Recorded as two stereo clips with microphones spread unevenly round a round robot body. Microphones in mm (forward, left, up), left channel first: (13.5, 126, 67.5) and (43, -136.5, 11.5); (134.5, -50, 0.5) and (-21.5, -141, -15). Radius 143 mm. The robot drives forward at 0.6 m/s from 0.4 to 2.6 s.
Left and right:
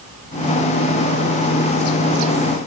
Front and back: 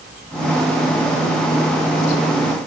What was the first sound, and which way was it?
Only background noise.